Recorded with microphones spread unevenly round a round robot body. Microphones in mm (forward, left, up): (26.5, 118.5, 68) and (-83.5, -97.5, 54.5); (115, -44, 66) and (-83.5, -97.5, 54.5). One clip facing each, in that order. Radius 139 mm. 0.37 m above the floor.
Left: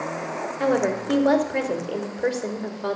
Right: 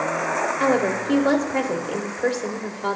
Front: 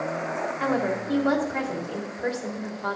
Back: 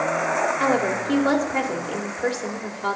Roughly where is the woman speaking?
Behind left.